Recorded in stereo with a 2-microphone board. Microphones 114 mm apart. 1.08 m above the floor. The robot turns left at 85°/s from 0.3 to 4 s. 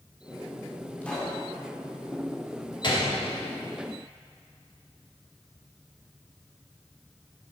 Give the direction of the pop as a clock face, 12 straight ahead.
11 o'clock.